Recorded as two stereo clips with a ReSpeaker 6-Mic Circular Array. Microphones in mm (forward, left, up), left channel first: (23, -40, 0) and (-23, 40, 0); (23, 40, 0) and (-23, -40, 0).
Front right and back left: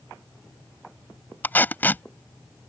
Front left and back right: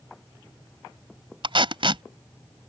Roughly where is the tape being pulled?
Behind right.